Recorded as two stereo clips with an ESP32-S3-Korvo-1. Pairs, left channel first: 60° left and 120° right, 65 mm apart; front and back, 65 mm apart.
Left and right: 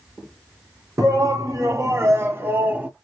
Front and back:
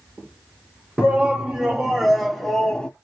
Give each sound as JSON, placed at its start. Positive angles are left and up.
{"t": 1.0, "sound": "a shout", "azimuth_deg": -110, "distance_m": 2.5}